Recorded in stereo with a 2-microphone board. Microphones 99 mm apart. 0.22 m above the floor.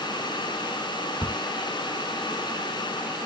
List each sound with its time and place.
1.2 s a crack: 10° left (ahead or behind), 1.2 m